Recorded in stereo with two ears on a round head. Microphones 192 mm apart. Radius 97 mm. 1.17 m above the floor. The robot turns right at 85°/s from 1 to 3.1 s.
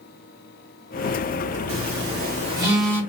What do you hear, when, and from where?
1.7 s a phone buzzing: 65° right (ahead or behind), 1.2 m; by 3.0 s 15° left (ahead or behind), 1.2 m